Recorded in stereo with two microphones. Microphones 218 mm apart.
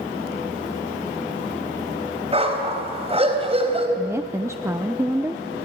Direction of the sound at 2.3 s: 25° right (ahead or behind).